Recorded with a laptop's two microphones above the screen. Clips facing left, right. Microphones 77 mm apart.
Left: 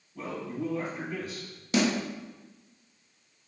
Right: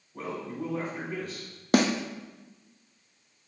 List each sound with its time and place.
0.1 s a man speaking: 55° right (ahead or behind), 3 m
1.7 s a snare drum: 50° right (ahead or behind), 0.6 m